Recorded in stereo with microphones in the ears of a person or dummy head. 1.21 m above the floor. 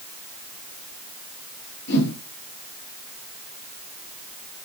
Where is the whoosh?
60° left (ahead or behind), 9 m.